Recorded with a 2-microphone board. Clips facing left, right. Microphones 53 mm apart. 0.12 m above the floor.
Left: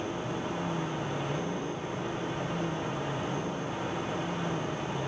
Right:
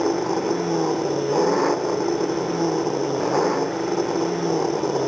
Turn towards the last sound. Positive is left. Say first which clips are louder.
# right 12 dB
turn(degrees=-75)  # may be behind; listen again after turning